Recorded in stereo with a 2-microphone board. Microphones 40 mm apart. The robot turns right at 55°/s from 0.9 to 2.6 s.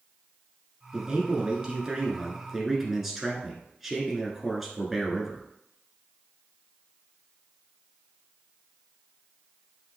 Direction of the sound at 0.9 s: 20° right (ahead or behind).